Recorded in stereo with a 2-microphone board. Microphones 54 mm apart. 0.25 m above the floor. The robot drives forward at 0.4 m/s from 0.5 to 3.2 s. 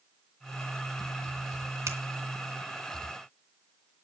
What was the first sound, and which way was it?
A finger snap, 55° right (ahead or behind).